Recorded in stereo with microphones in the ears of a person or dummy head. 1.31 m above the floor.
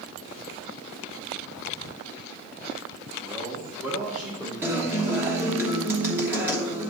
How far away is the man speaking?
About 1.1 m.